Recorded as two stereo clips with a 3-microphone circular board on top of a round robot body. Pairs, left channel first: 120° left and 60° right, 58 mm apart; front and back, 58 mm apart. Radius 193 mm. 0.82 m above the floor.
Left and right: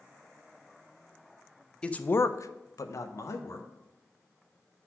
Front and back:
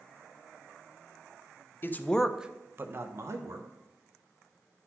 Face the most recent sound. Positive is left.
turn(degrees=150)